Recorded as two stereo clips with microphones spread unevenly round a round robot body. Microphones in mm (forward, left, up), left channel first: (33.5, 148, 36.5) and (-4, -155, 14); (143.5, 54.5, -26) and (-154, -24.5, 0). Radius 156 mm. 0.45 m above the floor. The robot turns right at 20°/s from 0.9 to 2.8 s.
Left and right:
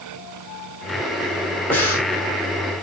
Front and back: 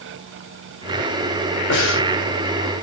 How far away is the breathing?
About 1.7 m.